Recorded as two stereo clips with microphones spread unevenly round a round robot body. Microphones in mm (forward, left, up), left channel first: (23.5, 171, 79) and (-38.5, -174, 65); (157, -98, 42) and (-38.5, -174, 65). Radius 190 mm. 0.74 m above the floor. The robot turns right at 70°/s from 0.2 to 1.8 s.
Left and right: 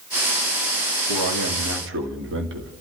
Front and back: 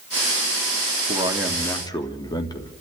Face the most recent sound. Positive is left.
turn(degrees=-45)